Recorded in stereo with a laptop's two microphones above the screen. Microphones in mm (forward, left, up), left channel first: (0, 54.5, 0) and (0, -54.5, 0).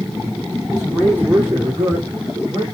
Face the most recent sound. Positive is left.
turn(degrees=-35)  # may be behind; listen again after turning